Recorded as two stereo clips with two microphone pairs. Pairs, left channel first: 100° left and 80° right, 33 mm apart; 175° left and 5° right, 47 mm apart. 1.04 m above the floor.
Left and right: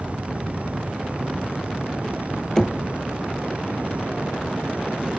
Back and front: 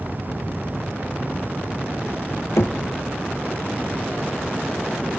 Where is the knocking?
170° left, 1.0 m.